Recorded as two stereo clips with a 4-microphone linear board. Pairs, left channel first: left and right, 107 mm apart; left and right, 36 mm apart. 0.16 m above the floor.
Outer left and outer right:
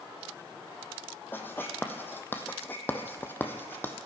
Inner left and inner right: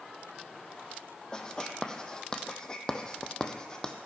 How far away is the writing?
About 1.3 m.